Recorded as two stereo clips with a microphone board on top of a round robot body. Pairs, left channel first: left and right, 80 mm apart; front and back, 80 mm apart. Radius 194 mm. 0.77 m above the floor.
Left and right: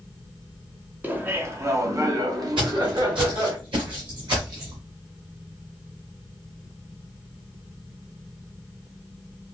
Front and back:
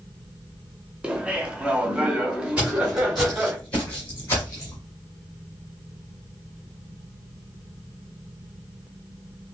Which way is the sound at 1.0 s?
120° right.